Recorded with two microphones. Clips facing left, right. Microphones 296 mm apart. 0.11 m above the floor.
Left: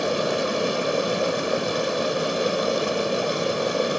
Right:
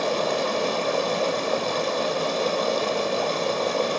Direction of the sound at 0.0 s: 15° left (ahead or behind).